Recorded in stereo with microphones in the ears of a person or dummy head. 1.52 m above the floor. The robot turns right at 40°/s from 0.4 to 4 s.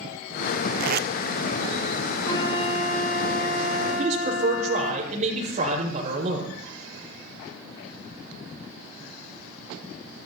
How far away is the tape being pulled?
About 0.7 m.